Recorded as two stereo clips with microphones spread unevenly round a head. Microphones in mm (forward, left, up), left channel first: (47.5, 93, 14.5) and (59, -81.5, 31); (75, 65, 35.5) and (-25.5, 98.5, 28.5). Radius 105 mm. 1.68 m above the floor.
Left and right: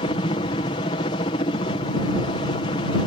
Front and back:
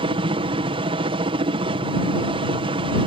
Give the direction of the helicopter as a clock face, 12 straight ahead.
7 o'clock.